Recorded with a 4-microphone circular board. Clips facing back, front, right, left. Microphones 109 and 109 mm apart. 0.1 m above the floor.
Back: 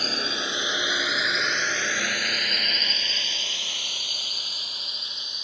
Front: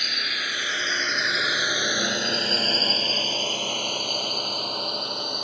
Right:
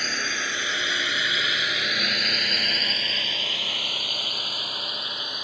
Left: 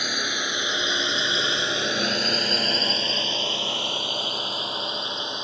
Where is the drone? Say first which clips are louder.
Back 3 dB, left 1 dB; 160° left; by 5.4 s 25° left.